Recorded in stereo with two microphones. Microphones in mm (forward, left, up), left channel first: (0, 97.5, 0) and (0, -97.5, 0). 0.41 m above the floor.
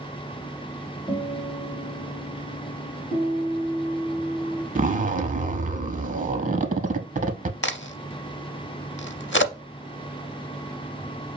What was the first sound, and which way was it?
A guitar, 30° left (ahead or behind).